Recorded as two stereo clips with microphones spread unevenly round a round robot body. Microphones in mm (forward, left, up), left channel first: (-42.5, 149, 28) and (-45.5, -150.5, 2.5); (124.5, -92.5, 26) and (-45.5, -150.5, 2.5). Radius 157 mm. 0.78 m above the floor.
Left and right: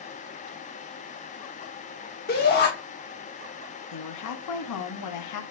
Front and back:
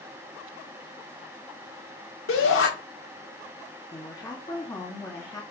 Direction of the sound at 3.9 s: 100° left.